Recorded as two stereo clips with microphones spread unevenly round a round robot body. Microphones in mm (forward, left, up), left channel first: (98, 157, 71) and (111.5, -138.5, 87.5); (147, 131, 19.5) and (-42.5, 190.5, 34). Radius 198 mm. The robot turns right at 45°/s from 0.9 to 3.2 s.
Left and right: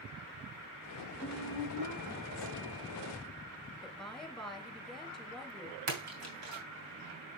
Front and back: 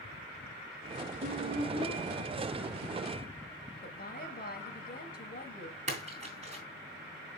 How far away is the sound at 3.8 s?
About 3.5 m.